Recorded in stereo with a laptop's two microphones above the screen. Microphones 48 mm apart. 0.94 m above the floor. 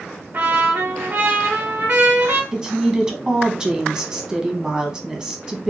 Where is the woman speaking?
20° right (ahead or behind), 0.8 m.